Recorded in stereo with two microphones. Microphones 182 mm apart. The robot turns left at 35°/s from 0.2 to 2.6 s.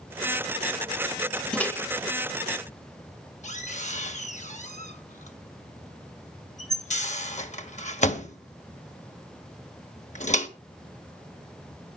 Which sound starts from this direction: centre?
A microwave, at 1.5 s.